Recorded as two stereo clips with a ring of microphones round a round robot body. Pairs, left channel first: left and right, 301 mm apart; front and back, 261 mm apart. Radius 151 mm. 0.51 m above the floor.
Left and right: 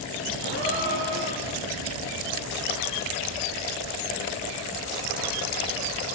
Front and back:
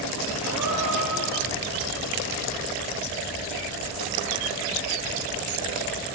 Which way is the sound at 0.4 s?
95° right.